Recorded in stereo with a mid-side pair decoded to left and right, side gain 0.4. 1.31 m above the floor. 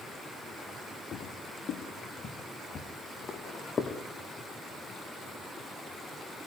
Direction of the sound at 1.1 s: 65° left.